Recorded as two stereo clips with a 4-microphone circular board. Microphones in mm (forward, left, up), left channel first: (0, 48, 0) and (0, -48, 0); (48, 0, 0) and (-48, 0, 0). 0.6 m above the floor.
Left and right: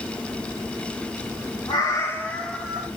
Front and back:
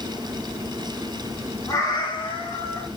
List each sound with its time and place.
1.7 s a cat meowing: 55° left, 0.8 m; by 2.9 s 15° right, 0.9 m